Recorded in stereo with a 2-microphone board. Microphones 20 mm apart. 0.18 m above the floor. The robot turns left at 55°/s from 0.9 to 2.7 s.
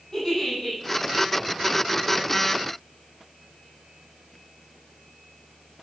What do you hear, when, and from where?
0.1 s a giggle: 30° left (ahead or behind), 6 m